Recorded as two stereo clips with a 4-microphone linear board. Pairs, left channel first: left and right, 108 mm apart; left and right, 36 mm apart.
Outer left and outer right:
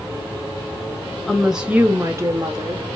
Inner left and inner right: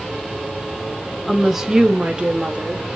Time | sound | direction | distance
1.3 | a woman speaking | centre (ahead or behind) | 1.3 m